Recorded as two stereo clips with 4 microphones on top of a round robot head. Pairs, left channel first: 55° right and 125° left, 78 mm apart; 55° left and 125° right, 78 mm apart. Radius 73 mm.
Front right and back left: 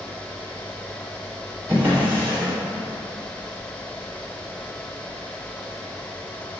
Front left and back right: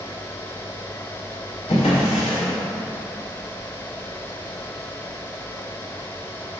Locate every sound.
1.7 s a drawer: 60° left, 0.7 m